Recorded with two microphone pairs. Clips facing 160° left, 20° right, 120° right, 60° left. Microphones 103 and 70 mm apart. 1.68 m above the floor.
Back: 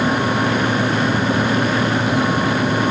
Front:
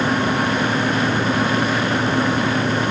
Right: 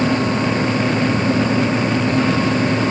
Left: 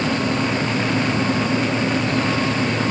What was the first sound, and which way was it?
Only background noise.